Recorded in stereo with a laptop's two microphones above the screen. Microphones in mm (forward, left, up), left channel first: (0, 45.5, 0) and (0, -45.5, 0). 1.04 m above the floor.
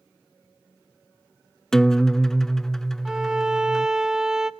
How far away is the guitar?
About 0.5 m.